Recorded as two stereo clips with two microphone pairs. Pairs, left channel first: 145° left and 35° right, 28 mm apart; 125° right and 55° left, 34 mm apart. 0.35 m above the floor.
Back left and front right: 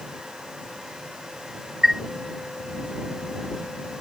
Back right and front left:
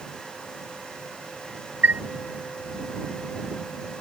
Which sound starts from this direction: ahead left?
A chime, at 1.8 s.